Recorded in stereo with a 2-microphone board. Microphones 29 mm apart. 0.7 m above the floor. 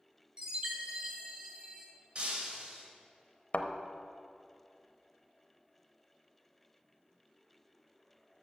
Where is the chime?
25° right (ahead or behind), 1.2 m.